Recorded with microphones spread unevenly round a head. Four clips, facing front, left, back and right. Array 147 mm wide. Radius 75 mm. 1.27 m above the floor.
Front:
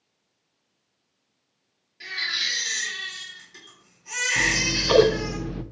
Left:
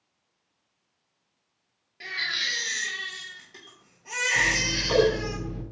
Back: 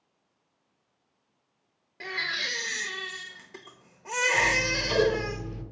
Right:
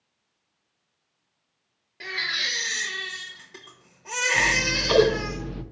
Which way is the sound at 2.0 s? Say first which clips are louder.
Right 2 dB, even; 160° right.